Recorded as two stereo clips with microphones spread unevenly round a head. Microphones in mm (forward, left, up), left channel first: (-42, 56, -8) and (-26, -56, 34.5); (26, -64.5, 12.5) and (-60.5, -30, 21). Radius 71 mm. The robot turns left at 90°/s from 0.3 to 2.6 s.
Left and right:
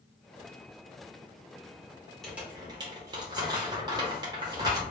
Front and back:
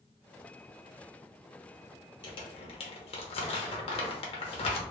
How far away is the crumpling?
About 0.7 m.